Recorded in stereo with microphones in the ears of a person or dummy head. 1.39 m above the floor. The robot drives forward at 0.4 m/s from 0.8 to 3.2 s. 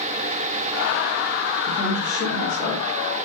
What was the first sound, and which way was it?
A woman speaking, 25° left (ahead or behind).